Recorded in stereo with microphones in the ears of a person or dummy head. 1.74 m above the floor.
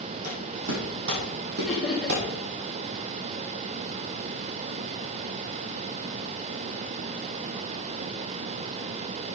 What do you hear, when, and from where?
0.2 s footsteps: 55° right (ahead or behind), 4.5 m; by 2.2 s 60° right (ahead or behind), 4 m
1.7 s laughter: 5° right (ahead or behind), 2.5 m